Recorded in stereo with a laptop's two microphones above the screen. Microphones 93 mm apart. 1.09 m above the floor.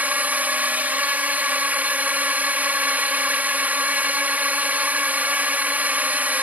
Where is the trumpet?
No trumpet in this recording.